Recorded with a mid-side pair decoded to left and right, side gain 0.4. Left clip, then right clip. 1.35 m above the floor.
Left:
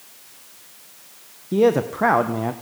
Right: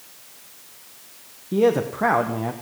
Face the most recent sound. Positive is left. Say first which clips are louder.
# left 2 dB
turn(degrees=25)